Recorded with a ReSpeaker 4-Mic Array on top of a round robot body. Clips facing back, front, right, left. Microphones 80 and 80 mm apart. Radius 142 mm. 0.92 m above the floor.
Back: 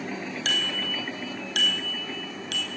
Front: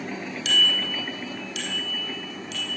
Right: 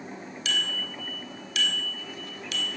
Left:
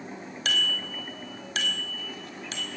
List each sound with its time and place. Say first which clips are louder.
0.5 s a bicycle bell: front 5 dB, left 2 dB; 135° left, 4 m; by 2.7 s 150° left, 4.5 m